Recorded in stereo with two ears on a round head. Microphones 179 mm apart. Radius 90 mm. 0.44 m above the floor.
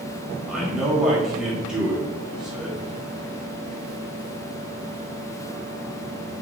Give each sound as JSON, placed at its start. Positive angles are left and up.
{"t": 0.5, "sound": "a man speaking", "side_deg": -5, "distance_m": 1.7}